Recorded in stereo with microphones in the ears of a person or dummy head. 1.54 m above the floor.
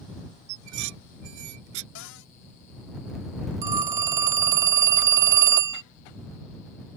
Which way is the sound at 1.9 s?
65° left (ahead or behind).